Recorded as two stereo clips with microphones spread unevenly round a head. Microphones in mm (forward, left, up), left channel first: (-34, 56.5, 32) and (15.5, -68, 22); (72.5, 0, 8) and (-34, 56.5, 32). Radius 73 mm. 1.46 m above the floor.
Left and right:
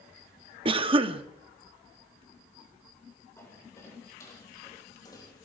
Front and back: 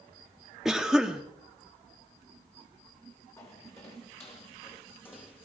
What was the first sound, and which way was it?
A cough, 115° right.